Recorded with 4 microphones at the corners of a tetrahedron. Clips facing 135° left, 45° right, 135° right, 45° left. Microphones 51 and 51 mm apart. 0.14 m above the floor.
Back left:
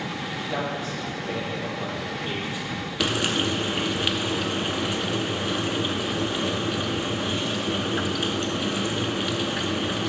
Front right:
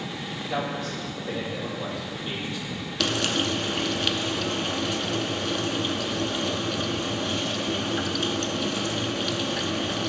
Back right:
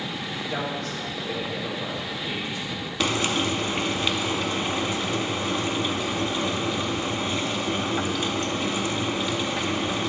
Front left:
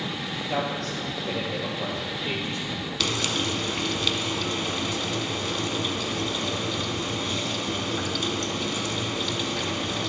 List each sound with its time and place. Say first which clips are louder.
0.5 s a man speaking: front right 1 dB, front left 3 dB; 55° left, 3 m
3.0 s frying: back left 1 dB, back right 4 dB; 175° right, 0.6 m